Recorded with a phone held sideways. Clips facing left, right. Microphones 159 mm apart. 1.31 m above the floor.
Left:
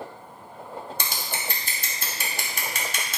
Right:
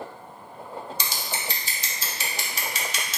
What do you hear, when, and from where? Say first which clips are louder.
1.0 s scissors: even; 55° left (ahead or behind), 0.8 m